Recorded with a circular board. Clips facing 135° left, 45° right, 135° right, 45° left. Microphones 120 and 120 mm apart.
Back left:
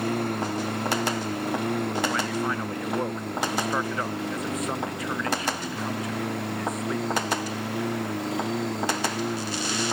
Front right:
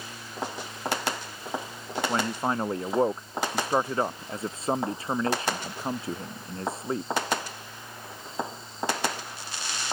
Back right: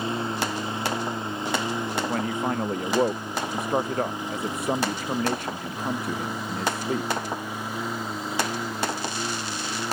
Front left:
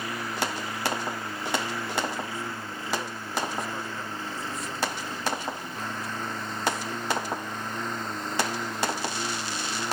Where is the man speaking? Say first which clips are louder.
Even, back right 8 dB; 105° right.